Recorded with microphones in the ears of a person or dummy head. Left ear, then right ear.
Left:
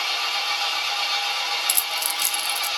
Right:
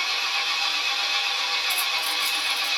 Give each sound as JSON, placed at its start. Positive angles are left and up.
{"t": 0.0, "sound": "an engine running", "side_deg": 35, "distance_m": 1.9}
{"t": 1.7, "sound": "keys jangling", "side_deg": 75, "distance_m": 0.6}